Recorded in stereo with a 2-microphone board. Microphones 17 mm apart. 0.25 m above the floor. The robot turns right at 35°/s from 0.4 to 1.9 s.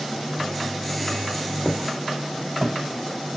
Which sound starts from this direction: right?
Footsteps, at 1.6 s.